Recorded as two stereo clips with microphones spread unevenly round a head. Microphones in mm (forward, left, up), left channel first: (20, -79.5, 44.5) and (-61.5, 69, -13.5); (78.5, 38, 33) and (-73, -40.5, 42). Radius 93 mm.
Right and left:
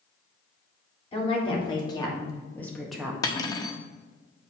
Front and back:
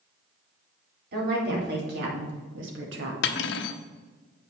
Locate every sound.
1.1 s a woman speaking: 125° right, 4 m; by 3.1 s 165° right, 1.7 m
3.2 s cutlery clinking: straight ahead, 0.7 m